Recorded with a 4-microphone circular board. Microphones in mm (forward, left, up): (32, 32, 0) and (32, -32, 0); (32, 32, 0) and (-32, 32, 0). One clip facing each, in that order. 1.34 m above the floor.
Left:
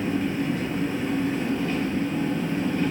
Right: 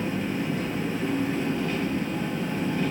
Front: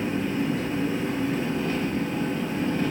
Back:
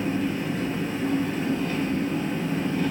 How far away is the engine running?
About 1.5 m.